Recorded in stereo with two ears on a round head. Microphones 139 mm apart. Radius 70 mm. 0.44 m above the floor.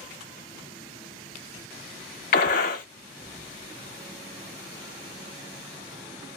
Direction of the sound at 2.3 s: 55° left (ahead or behind).